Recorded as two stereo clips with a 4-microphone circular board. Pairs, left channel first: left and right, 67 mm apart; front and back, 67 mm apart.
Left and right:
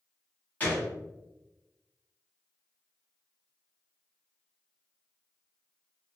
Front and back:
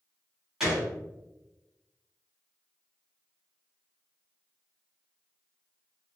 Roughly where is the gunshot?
Left.